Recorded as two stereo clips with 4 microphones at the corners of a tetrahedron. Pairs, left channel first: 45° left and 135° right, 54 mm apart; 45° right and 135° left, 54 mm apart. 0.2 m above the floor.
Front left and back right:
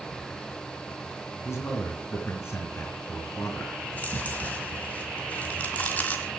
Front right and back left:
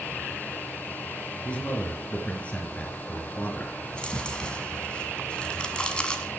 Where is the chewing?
15° left, 1.6 m.